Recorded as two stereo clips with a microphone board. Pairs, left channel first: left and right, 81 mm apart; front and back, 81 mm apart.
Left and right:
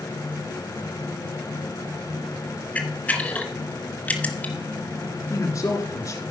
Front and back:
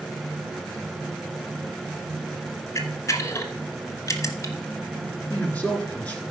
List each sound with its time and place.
2.8 s a camera shutter: 25° left, 1.2 m
5.3 s a man speaking: 65° left, 1.5 m